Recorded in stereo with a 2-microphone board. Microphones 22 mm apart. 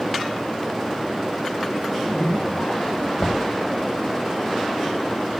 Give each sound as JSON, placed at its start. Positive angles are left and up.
{"t": 1.8, "sound": "a zipper", "side_deg": 65, "distance_m": 6.0}
{"t": 3.2, "sound": "knocking", "side_deg": 35, "distance_m": 1.9}